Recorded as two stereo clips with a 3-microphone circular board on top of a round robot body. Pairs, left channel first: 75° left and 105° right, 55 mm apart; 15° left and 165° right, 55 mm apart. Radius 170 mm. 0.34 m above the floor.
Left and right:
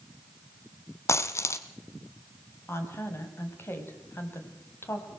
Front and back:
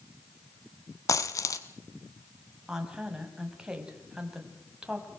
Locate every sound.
1.1 s a dropped coin: 40° left, 1.2 m
2.7 s a woman speaking: 120° left, 4 m